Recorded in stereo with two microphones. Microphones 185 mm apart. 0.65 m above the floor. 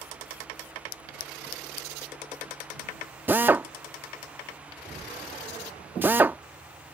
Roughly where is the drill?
Centre.